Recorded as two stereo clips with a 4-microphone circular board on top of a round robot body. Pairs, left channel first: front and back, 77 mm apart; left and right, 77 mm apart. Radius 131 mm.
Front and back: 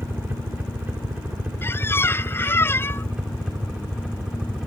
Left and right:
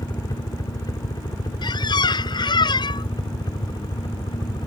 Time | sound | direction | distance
0.0 | a helicopter | 120° left | ?
1.6 | a squeak | 60° left | ?